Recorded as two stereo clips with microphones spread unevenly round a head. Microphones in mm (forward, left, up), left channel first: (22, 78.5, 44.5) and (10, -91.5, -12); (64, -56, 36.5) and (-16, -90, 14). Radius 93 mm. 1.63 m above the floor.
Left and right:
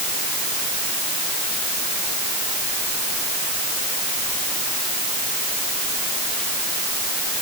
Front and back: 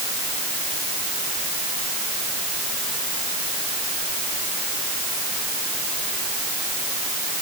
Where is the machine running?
No machine running in this recording.